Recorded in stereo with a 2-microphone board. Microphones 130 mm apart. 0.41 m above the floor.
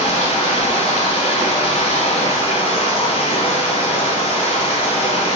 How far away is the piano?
I don't hear a piano.